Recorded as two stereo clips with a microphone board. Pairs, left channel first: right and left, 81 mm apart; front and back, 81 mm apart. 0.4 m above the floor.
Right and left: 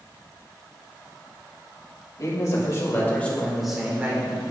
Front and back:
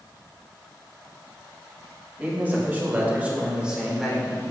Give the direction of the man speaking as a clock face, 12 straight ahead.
4 o'clock.